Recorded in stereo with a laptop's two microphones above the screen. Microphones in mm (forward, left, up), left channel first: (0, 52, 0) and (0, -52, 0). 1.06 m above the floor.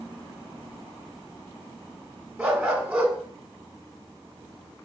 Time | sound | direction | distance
2.4 | a dog barking | 5° right (ahead or behind) | 0.9 m